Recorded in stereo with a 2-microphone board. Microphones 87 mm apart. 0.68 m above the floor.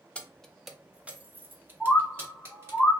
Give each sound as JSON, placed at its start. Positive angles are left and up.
{"t": 0.1, "sound": "keys jangling", "side_deg": 15, "distance_m": 0.6}
{"t": 1.8, "sound": "a bird", "side_deg": 10, "distance_m": 0.8}